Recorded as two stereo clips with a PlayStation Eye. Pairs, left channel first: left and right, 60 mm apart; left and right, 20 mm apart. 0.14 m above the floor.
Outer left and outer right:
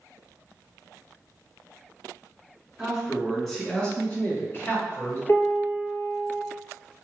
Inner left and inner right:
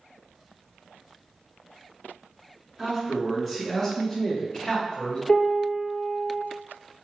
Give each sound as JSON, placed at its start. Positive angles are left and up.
{"t": 2.8, "sound": "a man speaking", "side_deg": -5, "distance_m": 1.4}
{"t": 5.3, "sound": "a piano", "side_deg": 45, "distance_m": 1.1}